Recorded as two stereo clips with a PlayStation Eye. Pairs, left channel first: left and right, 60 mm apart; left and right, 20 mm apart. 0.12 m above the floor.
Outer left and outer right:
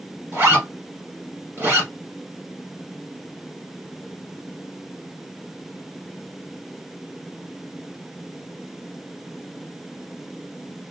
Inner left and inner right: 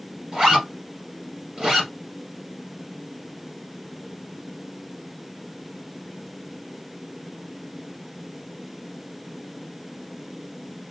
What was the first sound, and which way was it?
A zipper, 35° right (ahead or behind).